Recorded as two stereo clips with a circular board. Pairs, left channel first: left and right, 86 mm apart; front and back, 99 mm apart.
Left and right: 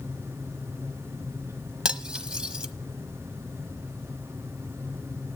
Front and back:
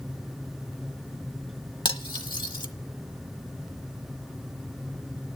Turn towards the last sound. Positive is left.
turn(degrees=-15)